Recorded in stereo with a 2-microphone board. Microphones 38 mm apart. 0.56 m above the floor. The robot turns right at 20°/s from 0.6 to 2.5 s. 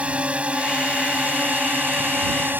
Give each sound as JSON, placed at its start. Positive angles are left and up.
{"t": 0.0, "sound": "a drone", "azimuth_deg": -140}